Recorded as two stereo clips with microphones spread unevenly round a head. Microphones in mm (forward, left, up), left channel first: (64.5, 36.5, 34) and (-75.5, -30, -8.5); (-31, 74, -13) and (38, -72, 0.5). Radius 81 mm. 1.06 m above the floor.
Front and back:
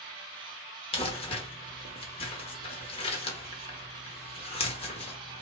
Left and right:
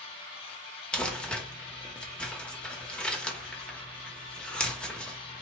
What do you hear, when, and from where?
0.9 s crumpling: 30° left, 0.9 m